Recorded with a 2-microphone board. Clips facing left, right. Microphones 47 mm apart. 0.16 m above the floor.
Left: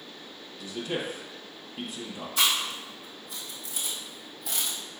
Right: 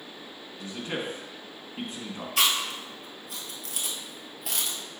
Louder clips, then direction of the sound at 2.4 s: Right 1 dB; 65° right (ahead or behind).